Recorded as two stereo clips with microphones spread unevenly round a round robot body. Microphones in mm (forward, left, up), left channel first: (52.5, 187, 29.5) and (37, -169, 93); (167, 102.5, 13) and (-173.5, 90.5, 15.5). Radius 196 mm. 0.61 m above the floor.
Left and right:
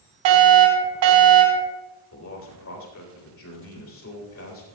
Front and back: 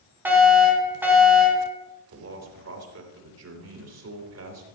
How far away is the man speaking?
About 3.5 m.